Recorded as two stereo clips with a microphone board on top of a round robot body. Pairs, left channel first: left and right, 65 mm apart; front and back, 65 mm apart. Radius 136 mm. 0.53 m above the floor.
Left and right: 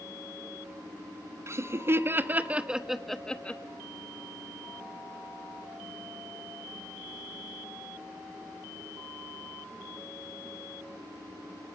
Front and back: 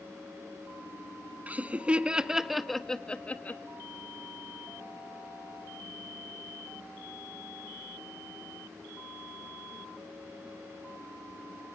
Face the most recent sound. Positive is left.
turn(degrees=40)